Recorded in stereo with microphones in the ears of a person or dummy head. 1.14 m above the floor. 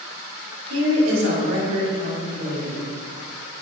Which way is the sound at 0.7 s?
80° right.